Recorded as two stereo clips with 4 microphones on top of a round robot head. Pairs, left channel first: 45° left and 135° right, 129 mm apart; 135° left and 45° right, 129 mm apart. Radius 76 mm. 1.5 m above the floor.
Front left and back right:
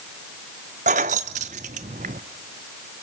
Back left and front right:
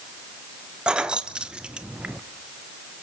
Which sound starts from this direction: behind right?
Keys jangling, at 0.9 s.